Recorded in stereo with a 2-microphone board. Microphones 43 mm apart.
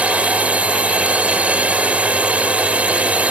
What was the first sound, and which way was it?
A drone, 30° right (ahead or behind).